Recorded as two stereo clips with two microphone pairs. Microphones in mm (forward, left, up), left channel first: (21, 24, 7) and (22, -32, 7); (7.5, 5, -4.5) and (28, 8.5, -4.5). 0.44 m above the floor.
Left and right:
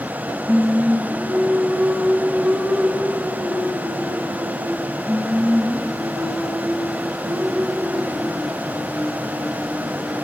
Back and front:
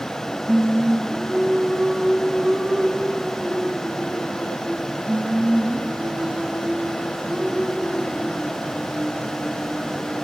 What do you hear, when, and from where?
0.5 s singing: 5° right, 1.6 m